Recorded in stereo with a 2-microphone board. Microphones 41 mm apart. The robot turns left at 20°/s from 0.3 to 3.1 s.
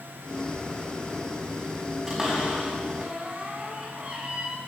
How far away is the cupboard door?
About 5 m.